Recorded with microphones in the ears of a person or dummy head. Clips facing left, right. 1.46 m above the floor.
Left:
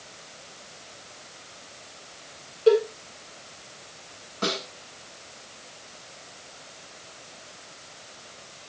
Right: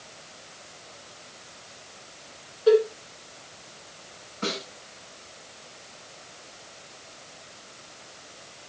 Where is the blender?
No blender in this recording.